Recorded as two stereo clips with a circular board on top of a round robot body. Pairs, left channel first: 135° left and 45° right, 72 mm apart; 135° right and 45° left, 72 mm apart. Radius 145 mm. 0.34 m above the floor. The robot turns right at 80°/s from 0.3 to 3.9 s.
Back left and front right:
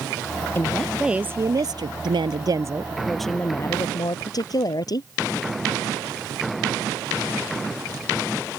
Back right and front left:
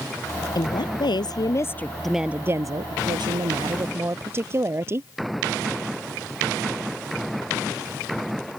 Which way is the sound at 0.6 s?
165° right.